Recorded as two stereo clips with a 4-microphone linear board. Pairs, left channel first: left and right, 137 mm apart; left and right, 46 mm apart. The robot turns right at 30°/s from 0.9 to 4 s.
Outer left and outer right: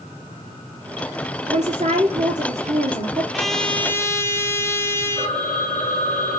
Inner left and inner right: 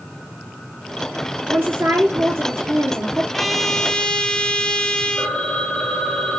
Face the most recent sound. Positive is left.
turn(degrees=5)  # may be behind; listen again after turning